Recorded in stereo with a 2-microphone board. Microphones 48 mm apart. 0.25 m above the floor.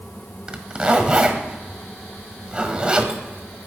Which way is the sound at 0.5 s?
20° right (ahead or behind).